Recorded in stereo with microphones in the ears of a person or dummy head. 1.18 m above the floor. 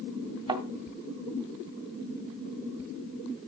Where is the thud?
25° right (ahead or behind), 2 m.